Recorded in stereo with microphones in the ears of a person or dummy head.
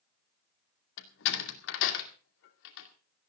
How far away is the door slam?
About 2 m.